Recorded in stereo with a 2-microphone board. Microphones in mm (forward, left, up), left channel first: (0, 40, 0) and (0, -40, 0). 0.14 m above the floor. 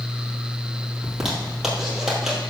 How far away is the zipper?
About 3 m.